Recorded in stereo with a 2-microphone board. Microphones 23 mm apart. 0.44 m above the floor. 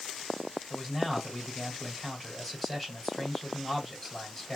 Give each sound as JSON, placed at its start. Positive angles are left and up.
{"t": 0.7, "sound": "a man speaking", "side_deg": 15, "distance_m": 2.5}